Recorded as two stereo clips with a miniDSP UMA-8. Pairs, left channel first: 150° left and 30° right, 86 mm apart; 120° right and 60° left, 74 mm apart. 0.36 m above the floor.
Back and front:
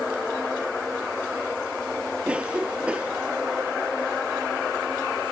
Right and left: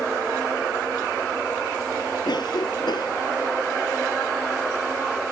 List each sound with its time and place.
2.2 s a cough: 105° right